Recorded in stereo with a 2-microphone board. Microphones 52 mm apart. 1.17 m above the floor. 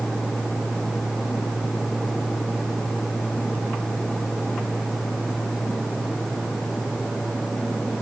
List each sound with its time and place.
Only background noise.